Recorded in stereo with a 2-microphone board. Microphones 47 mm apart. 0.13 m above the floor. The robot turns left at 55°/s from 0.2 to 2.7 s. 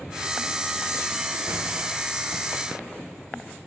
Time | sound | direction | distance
1.5 | a door slam | 75° right (ahead or behind) | 7.5 m